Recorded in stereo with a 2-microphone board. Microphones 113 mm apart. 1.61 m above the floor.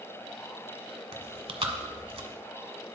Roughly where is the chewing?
Right.